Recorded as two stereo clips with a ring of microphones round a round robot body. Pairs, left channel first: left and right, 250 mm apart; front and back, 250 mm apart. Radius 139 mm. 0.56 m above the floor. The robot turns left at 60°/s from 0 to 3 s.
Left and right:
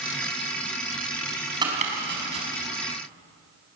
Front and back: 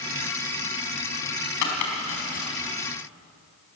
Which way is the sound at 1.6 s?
15° right.